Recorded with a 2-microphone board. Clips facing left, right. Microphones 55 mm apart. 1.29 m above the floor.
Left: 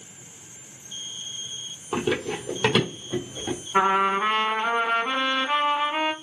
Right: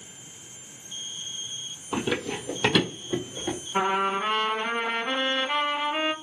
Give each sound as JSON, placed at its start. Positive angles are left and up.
{"t": 1.9, "sound": "running footsteps", "side_deg": 15, "distance_m": 1.5}
{"t": 3.7, "sound": "a trumpet", "side_deg": 35, "distance_m": 1.8}